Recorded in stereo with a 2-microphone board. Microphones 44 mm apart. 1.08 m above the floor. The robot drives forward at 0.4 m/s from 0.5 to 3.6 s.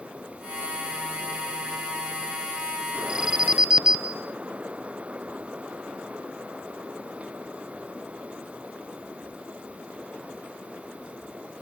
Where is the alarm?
20° right (ahead or behind), 1.2 m.